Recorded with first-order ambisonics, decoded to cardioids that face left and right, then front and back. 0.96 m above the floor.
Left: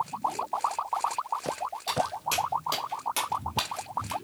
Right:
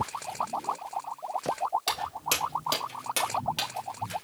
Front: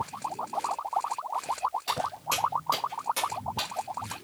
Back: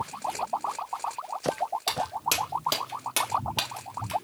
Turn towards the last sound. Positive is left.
turn(degrees=140)